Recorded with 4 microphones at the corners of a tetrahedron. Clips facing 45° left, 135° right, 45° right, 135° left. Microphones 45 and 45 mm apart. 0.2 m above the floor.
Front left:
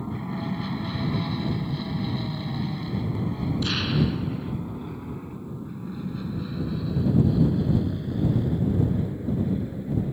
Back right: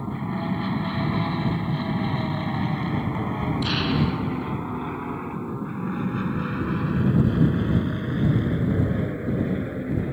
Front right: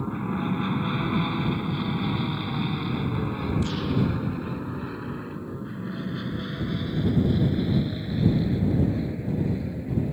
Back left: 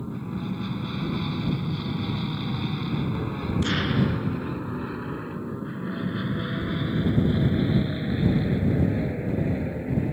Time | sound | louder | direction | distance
0.0 | an aircraft | back right 3 dB, front right 4 dB | 70° right | ?
3.6 | an explosion | back right 1 dB, back left 4 dB | 145° left | ?